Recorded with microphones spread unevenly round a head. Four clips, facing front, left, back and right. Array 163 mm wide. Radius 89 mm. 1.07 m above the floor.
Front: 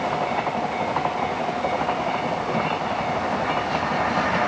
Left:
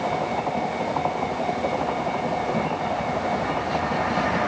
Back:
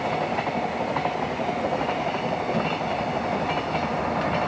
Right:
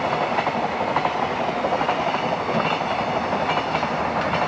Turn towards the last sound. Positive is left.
No sound to turn to.